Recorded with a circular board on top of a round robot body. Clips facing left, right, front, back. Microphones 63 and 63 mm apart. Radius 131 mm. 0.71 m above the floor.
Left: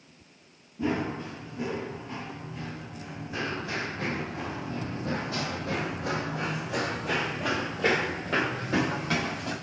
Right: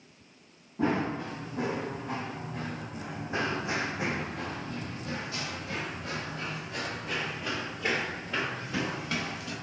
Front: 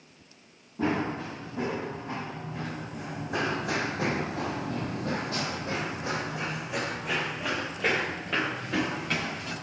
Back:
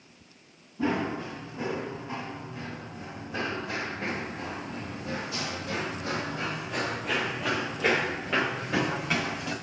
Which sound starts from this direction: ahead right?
Running footsteps, at 0.8 s.